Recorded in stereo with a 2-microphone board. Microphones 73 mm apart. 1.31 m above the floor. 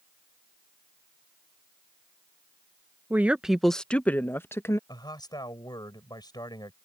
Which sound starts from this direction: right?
A woman speaking, at 3.1 s.